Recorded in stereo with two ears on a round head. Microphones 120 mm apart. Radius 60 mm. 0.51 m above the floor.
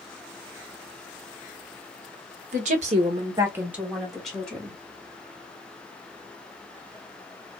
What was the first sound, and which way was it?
A woman speaking, 60° right (ahead or behind).